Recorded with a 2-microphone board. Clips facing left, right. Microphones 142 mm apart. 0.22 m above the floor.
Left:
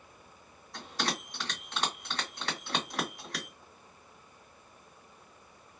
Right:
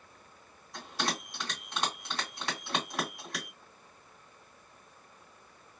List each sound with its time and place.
0.7 s a bell: centre (ahead or behind), 1.9 m